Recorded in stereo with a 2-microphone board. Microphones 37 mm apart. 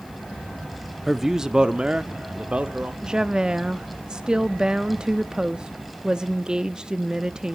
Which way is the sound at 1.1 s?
5° right (ahead or behind).